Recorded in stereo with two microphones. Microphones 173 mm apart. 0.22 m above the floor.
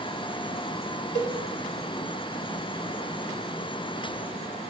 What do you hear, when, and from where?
1.1 s a cowbell: 50° left (ahead or behind), 0.9 m